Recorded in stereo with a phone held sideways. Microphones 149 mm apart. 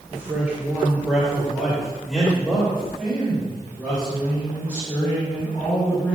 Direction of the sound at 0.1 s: 15° right (ahead or behind).